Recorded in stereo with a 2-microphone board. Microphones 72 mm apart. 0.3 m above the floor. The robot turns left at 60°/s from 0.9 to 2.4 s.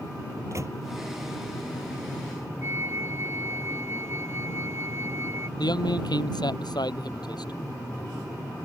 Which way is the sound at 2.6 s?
35° right (ahead or behind).